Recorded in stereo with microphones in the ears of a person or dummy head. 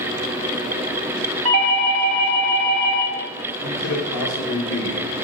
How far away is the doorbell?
About 1.3 m.